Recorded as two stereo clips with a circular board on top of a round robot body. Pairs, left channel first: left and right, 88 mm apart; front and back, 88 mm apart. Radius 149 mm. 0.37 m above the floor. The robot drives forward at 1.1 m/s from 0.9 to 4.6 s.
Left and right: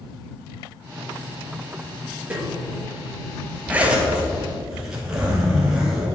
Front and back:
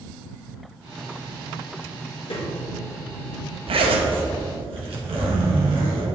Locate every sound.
2.3 s a snare drum: 20° right, 2.5 m
3.7 s a zipper: 165° right, 0.8 m; by 6.1 s 175° right, 1.8 m